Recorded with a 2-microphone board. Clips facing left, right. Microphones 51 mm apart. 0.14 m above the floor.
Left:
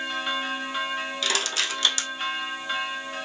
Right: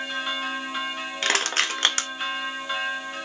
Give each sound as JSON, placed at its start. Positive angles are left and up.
{"t": 1.2, "sound": "crushing", "side_deg": -50, "distance_m": 0.6}